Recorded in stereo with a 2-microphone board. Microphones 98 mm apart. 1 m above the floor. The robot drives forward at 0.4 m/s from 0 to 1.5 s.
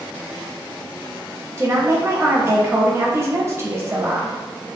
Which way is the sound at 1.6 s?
30° right (ahead or behind).